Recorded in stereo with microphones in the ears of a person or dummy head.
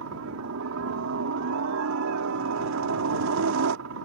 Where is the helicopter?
55° right (ahead or behind).